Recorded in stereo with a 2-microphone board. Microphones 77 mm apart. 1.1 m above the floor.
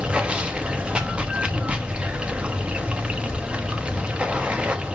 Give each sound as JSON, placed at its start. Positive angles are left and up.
{"t": 0.0, "sound": "running water", "side_deg": -15, "distance_m": 1.2}